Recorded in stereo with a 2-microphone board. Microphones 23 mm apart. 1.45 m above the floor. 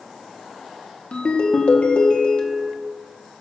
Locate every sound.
1.1 s a ringtone: 60° left (ahead or behind), 1.3 m